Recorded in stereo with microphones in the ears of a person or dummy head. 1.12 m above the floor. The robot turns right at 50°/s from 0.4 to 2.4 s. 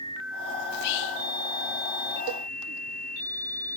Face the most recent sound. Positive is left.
turn(degrees=-50)  # may be behind; listen again after turning